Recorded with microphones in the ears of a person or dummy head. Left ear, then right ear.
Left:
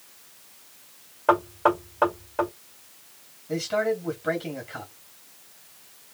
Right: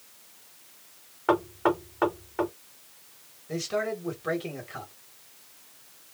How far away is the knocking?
About 1.9 m.